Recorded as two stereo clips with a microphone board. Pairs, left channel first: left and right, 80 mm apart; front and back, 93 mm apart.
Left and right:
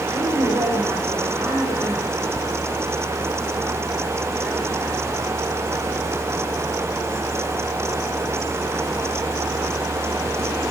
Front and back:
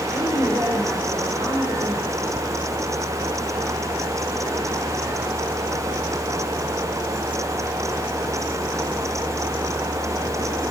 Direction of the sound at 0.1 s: 125° right.